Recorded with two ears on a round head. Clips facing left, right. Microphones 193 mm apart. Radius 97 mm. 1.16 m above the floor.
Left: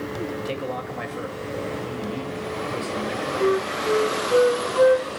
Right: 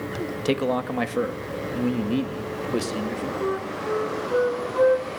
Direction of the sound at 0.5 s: 60° right (ahead or behind).